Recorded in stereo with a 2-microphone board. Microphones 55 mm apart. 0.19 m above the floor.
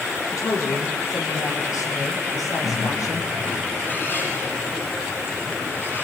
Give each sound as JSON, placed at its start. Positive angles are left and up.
{"t": 0.3, "sound": "a man speaking", "side_deg": 80, "distance_m": 5.5}
{"t": 2.6, "sound": "a bird", "side_deg": 35, "distance_m": 6.0}